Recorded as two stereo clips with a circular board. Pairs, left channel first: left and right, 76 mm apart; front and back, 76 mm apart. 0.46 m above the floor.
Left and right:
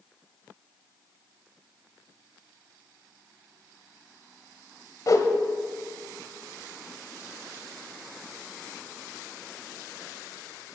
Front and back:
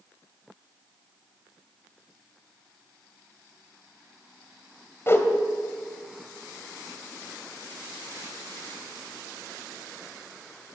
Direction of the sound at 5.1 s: 55° left.